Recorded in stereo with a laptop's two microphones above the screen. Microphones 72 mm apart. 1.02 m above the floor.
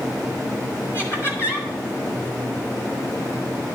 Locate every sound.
0.9 s laughter: 35° left (ahead or behind), 4 m